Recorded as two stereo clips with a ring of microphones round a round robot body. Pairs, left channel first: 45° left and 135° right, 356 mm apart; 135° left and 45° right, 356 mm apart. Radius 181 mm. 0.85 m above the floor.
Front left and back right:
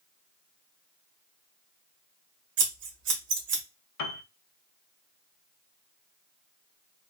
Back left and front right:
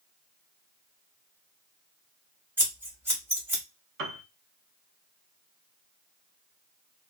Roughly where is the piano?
Ahead.